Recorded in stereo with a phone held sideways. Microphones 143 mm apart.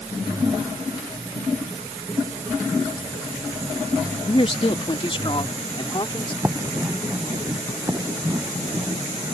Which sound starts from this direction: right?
Writing, at 6.4 s.